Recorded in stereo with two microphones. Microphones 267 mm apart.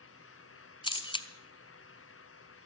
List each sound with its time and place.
0.8 s a camera shutter: 20° left (ahead or behind), 1.1 m